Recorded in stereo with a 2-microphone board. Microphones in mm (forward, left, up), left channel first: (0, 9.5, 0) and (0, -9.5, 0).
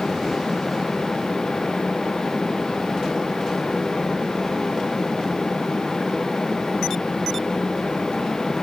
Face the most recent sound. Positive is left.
No sound to turn to.